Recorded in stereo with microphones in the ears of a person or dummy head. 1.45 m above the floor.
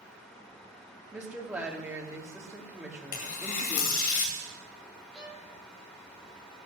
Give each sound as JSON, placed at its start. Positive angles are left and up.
{"t": 1.1, "sound": "a woman speaking", "side_deg": -10, "distance_m": 3.0}
{"t": 3.1, "sound": "tearing paper", "side_deg": 65, "distance_m": 2.0}
{"t": 5.1, "sound": "a violin", "side_deg": 5, "distance_m": 7.5}